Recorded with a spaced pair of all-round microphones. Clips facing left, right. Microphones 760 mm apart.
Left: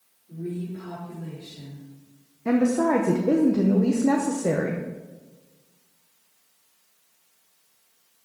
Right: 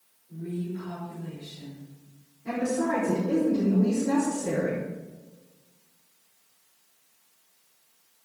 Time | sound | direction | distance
0.3 | a woman speaking | 75° left (ahead or behind) | 5 m
2.5 | a woman speaking | 80° left | 1.2 m